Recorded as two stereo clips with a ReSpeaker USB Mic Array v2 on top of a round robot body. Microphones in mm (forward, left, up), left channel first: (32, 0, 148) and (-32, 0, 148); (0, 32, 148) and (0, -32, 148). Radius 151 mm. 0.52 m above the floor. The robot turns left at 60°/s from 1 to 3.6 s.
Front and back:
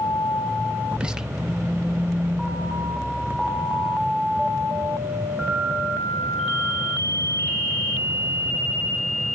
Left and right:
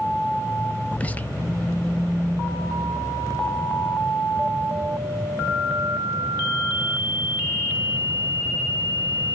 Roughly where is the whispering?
Behind left.